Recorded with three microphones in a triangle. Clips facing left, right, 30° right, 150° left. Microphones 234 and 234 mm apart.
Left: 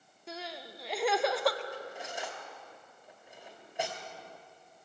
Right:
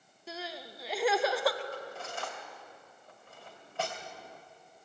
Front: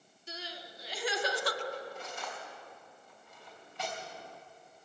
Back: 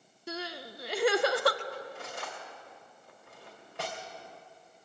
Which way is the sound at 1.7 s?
160° left.